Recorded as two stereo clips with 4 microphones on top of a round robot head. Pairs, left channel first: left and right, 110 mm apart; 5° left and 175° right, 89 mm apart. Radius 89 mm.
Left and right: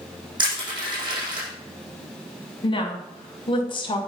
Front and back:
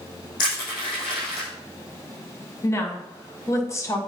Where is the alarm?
No alarm in this recording.